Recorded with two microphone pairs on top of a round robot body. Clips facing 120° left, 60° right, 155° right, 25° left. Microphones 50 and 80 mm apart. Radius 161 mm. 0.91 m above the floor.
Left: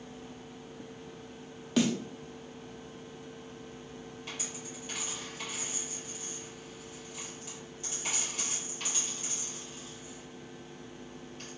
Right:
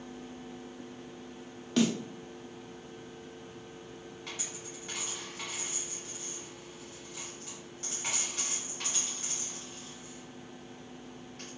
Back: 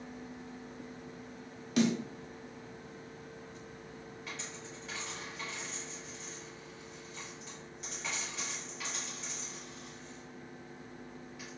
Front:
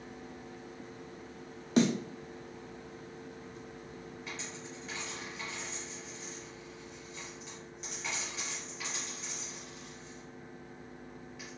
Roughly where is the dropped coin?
Ahead right.